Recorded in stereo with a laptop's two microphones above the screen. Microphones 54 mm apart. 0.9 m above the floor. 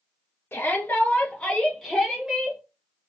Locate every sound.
0.5 s a shout: 40° left (ahead or behind), 1.1 m; by 2.6 s 20° right (ahead or behind), 1.1 m